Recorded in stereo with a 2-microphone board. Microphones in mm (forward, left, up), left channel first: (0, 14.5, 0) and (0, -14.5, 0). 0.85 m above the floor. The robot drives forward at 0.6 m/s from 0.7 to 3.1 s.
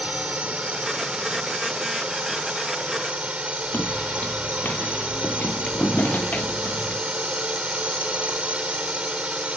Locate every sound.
0.0 s a drone: 45° right (ahead or behind)
3.7 s footsteps: 70° left (ahead or behind)